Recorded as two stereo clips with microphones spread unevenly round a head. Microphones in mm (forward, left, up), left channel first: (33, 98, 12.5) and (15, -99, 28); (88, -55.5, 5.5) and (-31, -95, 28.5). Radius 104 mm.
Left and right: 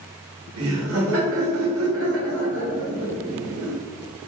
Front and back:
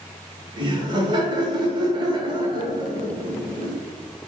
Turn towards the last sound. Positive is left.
turn(degrees=-115)